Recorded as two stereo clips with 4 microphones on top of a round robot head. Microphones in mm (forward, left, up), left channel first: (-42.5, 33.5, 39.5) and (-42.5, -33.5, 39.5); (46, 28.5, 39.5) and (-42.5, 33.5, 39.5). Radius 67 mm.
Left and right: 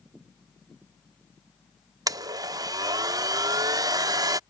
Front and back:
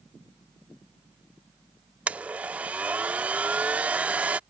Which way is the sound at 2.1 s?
110° right.